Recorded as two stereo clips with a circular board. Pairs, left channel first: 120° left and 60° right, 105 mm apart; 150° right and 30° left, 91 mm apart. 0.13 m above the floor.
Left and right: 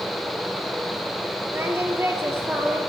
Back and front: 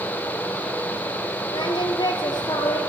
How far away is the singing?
About 2 m.